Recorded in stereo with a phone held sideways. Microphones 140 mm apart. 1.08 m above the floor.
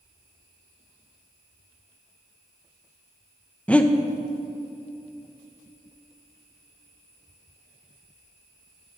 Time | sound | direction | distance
3.7 | breathing | 10° left (ahead or behind) | 0.5 m